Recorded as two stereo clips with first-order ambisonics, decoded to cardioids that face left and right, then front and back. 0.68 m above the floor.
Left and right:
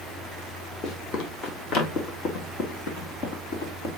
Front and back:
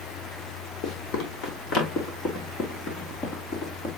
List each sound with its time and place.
0.8 s running footsteps: 40° left, 2.0 m; by 3.9 s 60° left, 3.5 m